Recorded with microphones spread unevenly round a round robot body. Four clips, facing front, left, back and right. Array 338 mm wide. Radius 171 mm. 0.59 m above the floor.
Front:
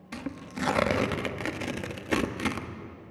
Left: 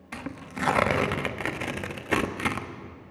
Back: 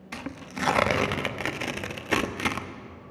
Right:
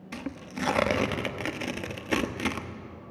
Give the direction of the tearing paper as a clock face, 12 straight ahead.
1 o'clock.